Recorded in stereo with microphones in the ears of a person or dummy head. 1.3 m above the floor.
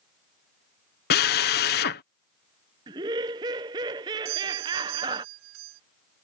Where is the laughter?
25° right (ahead or behind).